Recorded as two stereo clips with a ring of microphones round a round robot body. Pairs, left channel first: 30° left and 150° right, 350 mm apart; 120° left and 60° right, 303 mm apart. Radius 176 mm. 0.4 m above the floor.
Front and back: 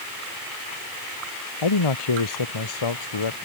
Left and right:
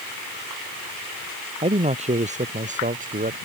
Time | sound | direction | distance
1.6 | a man speaking | 10° left | ?